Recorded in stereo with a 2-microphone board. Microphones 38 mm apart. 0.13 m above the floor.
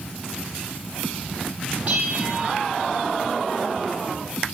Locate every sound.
1.9 s a bell: 40° right (ahead or behind), 3.5 m